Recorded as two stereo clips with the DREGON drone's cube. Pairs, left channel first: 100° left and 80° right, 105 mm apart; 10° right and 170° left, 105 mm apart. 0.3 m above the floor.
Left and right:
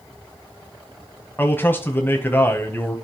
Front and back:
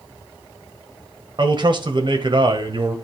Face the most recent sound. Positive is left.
turn(degrees=165)